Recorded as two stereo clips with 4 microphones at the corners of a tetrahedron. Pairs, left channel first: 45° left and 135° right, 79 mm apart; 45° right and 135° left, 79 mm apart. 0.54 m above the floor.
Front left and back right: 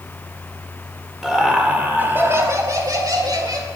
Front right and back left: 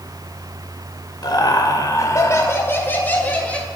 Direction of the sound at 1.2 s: 50° right.